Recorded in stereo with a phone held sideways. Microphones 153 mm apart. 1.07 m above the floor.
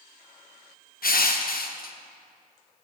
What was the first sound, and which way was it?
Crushing, 70° left (ahead or behind).